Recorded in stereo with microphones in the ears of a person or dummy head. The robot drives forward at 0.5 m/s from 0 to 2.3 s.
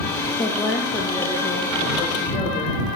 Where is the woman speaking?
15° left (ahead or behind), 0.6 m; by 2.8 s 5° left (ahead or behind), 1.6 m.